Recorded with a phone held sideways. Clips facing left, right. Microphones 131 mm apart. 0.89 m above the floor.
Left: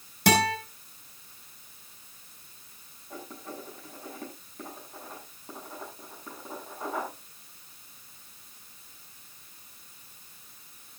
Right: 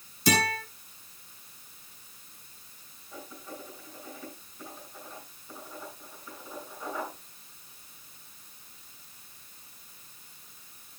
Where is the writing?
65° left (ahead or behind), 8 m.